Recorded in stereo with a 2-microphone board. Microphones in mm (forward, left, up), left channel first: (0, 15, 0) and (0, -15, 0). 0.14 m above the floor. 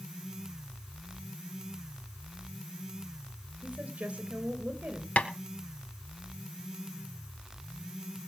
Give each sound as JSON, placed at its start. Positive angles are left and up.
{"t": 3.6, "sound": "a woman speaking", "side_deg": -45, "distance_m": 2.5}
{"t": 5.2, "sound": "tapping", "side_deg": 50, "distance_m": 1.5}